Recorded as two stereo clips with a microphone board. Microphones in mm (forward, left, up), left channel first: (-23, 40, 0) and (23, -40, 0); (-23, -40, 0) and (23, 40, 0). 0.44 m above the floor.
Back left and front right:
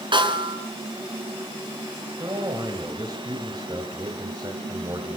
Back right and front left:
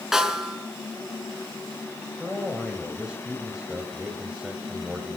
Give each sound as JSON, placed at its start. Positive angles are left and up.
{"t": 0.1, "sound": "a snare drum", "azimuth_deg": -25, "distance_m": 4.0}
{"t": 2.2, "sound": "a man speaking", "azimuth_deg": -20, "distance_m": 3.0}